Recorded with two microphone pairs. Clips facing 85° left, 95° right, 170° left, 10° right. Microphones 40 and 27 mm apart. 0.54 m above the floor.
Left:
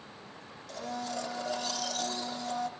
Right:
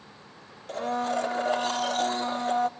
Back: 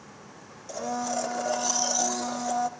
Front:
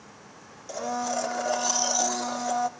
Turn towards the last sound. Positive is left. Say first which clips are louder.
# right 9 dB, front 1 dB
turn(degrees=-80)